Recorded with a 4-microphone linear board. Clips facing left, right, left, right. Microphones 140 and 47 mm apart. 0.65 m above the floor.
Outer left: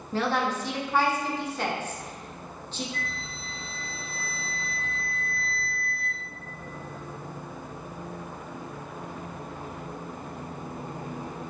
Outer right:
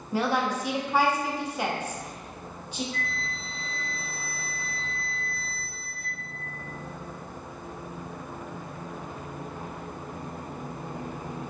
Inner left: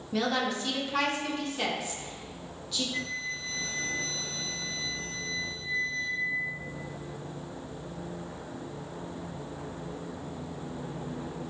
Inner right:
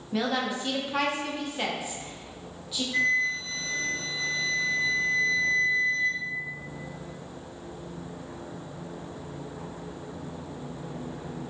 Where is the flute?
50° right (ahead or behind), 0.7 m.